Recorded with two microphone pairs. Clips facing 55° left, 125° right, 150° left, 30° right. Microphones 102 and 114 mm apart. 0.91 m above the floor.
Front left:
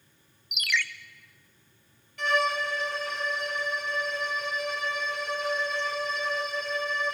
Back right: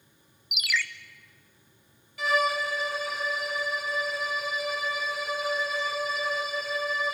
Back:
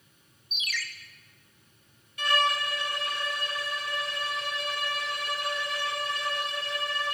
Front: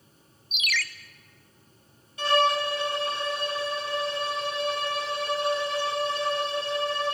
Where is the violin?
40° right, 0.6 m.